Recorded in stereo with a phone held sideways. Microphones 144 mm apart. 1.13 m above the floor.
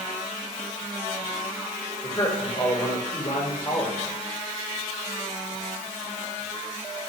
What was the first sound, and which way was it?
A man speaking, 25° left (ahead or behind).